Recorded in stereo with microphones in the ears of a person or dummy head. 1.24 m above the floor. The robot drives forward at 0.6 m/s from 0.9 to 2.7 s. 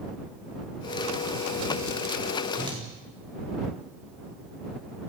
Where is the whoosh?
25° right (ahead or behind), 3.5 m.